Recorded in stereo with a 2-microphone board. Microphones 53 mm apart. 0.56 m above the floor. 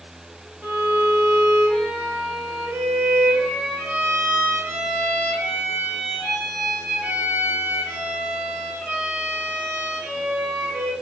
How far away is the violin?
About 3 m.